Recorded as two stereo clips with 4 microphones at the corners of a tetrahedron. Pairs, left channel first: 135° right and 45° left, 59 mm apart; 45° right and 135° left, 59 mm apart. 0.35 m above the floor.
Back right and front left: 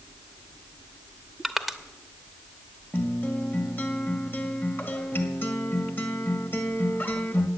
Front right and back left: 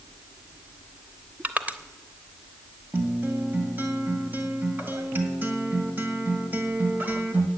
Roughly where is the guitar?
Behind.